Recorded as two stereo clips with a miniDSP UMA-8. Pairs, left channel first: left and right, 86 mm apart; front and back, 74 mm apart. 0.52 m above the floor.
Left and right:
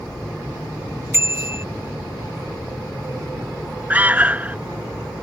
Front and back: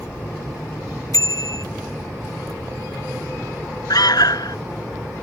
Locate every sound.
1.1 s a bicycle bell: 30° right
3.9 s an alarm: 20° right